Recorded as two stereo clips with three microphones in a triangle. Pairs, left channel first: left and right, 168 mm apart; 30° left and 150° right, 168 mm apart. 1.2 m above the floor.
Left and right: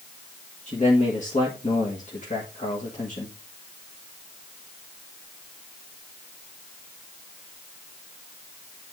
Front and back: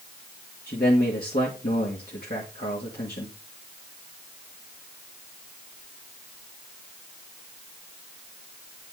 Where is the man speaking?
50° left, 1.8 m.